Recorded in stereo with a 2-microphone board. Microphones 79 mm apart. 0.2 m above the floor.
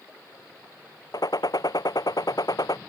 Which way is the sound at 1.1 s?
65° left (ahead or behind).